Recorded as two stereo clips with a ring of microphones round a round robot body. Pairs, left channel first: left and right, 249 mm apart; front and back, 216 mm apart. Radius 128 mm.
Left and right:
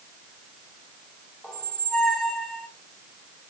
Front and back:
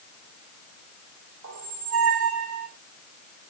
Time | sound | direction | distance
1.4 | a squeak | 175° left | 4 m